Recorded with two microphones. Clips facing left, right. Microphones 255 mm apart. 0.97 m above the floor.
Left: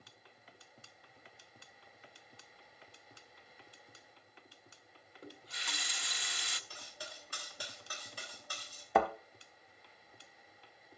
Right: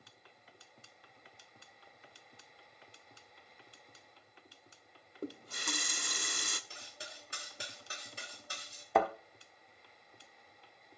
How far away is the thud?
About 1.1 m.